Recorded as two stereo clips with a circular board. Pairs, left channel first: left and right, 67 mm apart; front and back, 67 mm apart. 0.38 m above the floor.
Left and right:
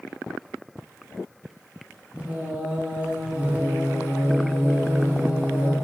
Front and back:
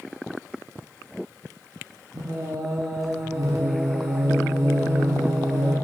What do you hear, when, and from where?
2.1 s singing: 155° right, 0.6 m